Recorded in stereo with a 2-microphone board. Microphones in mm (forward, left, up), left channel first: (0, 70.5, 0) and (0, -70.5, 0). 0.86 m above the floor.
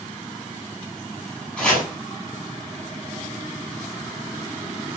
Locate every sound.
1.6 s chopping: 10° left (ahead or behind), 7.5 m